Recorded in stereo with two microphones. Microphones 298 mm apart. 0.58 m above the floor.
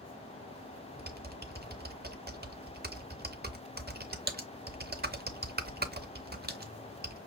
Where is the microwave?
I don't hear a microwave.